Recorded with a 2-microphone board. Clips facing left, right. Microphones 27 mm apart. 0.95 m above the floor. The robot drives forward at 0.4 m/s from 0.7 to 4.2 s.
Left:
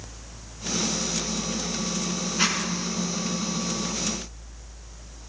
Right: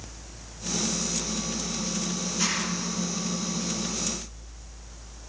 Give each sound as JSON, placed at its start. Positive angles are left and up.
{"t": 2.4, "sound": "a zipper", "side_deg": 40, "distance_m": 4.5}